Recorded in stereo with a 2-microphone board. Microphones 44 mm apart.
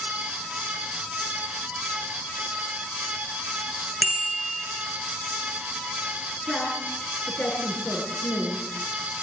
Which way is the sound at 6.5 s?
50° left (ahead or behind).